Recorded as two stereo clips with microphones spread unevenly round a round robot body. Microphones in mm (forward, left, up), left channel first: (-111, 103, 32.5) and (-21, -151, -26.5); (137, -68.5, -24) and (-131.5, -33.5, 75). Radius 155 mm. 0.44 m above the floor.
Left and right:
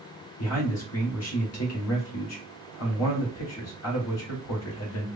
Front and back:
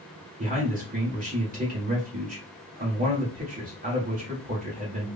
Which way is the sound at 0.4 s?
100° left.